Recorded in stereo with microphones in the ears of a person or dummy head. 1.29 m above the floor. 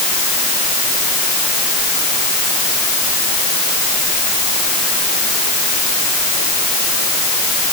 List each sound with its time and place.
Only background noise.